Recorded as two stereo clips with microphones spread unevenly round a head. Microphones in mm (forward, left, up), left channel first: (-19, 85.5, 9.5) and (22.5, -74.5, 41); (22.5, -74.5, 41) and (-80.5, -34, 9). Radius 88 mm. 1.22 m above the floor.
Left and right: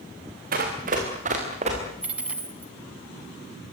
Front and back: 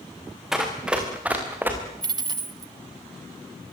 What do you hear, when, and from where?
0.5 s running footsteps: 110° right, 5.5 m; by 1.8 s 125° right, 6 m
2.0 s a dropped coin: 145° right, 1.5 m